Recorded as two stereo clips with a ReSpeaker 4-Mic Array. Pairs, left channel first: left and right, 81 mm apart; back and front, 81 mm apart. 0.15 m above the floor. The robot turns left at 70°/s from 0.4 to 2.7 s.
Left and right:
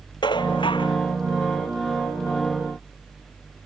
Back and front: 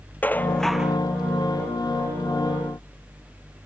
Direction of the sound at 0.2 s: 110° left.